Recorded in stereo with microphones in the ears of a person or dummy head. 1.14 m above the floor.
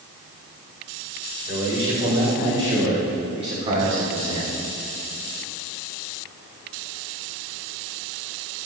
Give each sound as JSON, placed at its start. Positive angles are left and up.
{"t": 1.5, "sound": "a man speaking", "side_deg": -30, "distance_m": 4.0}